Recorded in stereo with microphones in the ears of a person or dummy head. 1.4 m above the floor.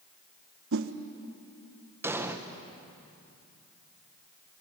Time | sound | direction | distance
0.7 | a whoosh | 70° right (ahead or behind) | 1.2 m
2.0 | an explosion | 15° right (ahead or behind) | 1.3 m